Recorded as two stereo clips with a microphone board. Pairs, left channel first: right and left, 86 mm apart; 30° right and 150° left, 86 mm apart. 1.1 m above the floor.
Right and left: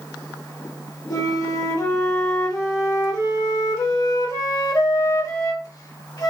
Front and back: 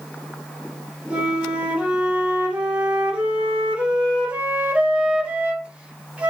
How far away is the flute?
About 1.2 m.